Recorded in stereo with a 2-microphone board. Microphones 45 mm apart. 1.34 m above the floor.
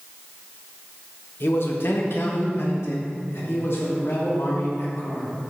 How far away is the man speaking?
About 1.2 m.